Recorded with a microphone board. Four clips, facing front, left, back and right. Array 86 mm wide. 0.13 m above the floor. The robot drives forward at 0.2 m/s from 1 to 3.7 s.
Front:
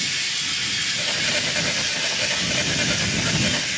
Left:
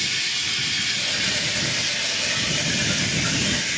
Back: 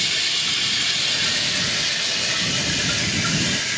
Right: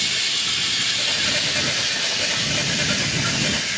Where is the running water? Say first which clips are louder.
Right 1 dB, back 2 dB; 140° right, 0.9 m; by 3.8 s 155° right, 1.4 m.